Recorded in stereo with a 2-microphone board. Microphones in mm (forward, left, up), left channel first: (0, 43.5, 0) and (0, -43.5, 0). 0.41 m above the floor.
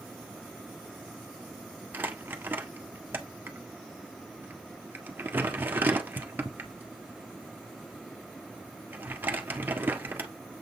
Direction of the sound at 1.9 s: 25° right (ahead or behind).